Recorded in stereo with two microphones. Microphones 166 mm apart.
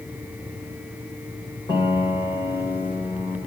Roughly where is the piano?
Left.